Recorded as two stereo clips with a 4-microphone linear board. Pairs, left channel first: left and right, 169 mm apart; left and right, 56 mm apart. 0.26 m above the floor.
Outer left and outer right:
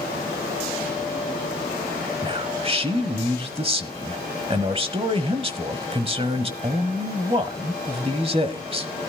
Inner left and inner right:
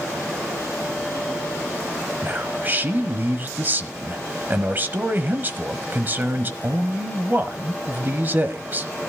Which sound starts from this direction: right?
A man speaking, at 2.2 s.